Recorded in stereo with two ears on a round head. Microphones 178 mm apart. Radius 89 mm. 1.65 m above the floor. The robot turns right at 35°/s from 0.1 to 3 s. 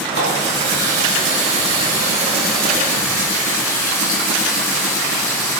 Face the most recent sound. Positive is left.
turn(degrees=15)